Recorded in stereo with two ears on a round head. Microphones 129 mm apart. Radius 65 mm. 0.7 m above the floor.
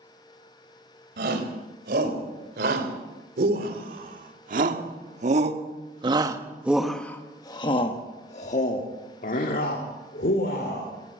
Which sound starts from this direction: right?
A shout, at 1.2 s.